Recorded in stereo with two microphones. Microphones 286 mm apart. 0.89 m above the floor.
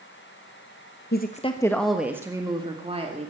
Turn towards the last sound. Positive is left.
turn(degrees=-25)  # may be behind; listen again after turning